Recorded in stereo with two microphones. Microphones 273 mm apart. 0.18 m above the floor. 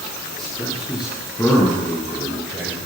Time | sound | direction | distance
0.4 | a man speaking | centre (ahead or behind) | 6 m